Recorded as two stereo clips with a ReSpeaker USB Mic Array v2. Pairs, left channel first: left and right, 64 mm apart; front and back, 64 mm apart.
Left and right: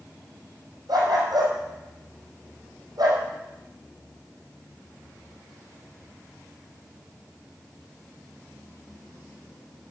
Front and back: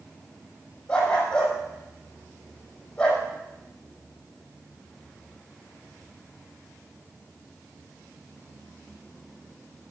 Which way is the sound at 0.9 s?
70° right.